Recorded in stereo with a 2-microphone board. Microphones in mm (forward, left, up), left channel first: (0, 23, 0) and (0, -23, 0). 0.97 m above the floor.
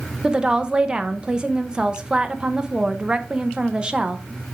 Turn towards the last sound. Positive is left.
turn(degrees=-20)  # may be behind; listen again after turning